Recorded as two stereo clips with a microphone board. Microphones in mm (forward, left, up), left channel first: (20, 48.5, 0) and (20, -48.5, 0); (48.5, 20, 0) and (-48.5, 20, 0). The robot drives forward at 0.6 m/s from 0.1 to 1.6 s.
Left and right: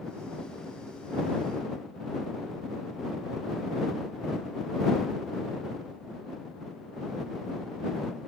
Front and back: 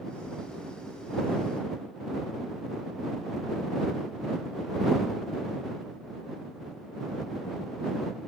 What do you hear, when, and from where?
Only background noise.